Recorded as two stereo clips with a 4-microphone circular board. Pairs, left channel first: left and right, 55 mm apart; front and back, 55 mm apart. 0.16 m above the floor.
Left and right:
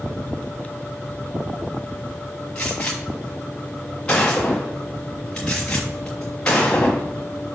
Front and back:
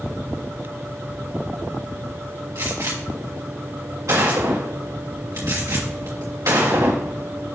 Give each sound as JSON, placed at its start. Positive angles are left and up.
{"t": 2.5, "sound": "a gunshot", "azimuth_deg": 165, "distance_m": 3.0}